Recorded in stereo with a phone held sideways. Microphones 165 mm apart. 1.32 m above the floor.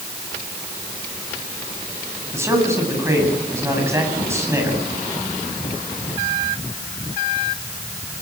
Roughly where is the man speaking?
Centre.